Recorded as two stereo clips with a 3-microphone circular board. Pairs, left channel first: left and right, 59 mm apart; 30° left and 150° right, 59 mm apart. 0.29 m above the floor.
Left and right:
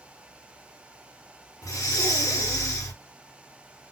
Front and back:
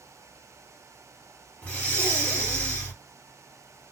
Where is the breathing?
100° left, 2.5 m.